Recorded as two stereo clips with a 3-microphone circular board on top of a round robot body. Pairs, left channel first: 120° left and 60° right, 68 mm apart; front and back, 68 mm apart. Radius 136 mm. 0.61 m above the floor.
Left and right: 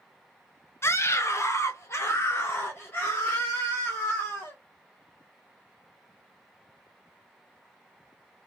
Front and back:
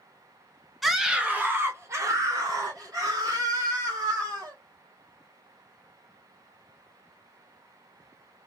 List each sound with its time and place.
0.8 s a scream: 95° left, 1.1 m; by 4.6 s 175° right, 3 m